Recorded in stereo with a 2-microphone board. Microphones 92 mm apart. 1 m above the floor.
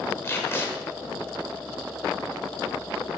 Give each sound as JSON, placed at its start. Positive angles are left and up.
{"t": 0.2, "sound": "tape being pulled", "side_deg": 25, "distance_m": 1.3}